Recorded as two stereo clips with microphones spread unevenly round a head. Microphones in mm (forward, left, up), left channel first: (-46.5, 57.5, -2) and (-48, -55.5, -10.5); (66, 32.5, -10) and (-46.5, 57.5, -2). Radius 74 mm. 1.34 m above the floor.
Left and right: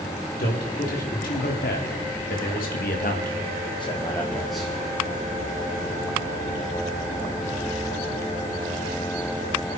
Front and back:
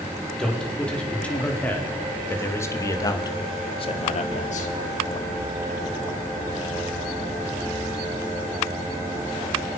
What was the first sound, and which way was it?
A man speaking, 70° left.